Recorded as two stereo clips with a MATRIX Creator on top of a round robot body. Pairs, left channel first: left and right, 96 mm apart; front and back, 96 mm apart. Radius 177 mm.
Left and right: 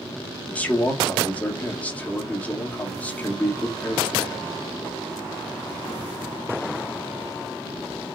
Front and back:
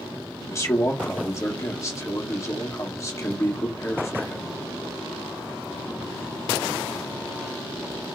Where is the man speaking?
25° left, 1.6 m.